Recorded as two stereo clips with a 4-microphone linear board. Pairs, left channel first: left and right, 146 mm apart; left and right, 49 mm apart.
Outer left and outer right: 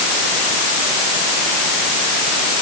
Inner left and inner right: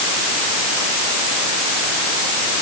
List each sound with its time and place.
Only background noise.